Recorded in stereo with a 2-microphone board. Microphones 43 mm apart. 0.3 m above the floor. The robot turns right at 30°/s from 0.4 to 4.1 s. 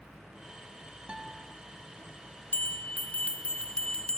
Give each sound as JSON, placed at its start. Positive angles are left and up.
{"t": 1.1, "sound": "a guitar", "side_deg": -25, "distance_m": 2.5}
{"t": 2.5, "sound": "a bell", "azimuth_deg": 105, "distance_m": 0.9}